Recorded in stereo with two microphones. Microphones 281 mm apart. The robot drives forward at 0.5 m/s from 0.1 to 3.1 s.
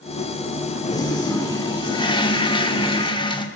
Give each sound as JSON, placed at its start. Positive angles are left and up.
{"t": 0.9, "sound": "a toilet flushing", "side_deg": 15, "distance_m": 1.4}